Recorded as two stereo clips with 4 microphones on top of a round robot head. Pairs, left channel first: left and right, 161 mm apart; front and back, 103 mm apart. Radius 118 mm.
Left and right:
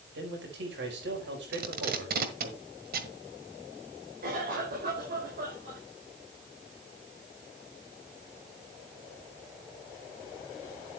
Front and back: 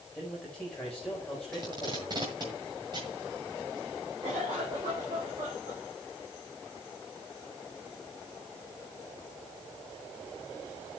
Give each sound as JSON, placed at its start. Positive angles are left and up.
{"t": 0.1, "sound": "a man speaking", "azimuth_deg": -85, "distance_m": 4.5}
{"t": 1.5, "sound": "tape being pulled", "azimuth_deg": -115, "distance_m": 1.5}
{"t": 4.2, "sound": "a cough", "azimuth_deg": -120, "distance_m": 5.0}